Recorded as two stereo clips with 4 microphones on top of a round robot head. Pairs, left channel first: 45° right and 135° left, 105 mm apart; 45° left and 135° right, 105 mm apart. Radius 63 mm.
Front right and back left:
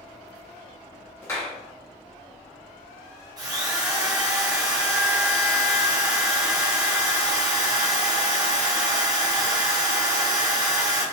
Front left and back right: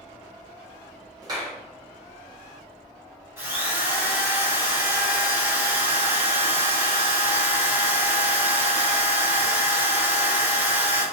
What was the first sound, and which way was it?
A clap, 100° right.